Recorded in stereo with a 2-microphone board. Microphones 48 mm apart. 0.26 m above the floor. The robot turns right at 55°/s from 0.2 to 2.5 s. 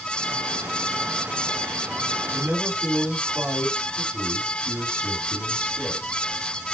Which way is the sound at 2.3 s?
50° right (ahead or behind).